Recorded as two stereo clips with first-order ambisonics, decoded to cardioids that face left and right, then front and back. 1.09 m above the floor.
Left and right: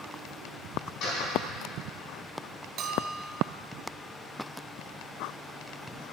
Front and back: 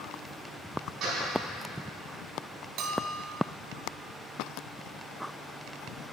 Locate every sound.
1.0 s a door slam: 125° left, 4 m
2.8 s a bell: 140° right, 0.9 m